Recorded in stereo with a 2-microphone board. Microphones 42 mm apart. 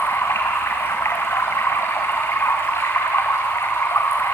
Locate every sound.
0.0 s running water: 85° left, 3.5 m